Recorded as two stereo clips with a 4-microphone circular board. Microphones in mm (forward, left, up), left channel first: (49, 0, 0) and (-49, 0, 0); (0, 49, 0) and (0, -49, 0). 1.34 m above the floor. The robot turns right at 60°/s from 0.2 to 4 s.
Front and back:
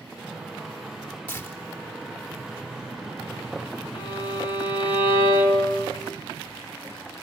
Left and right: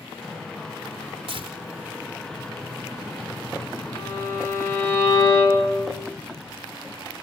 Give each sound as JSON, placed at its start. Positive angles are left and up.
{"t": 1.3, "sound": "tearing paper", "azimuth_deg": -75, "distance_m": 3.5}
{"t": 3.9, "sound": "a violin", "azimuth_deg": 25, "distance_m": 7.0}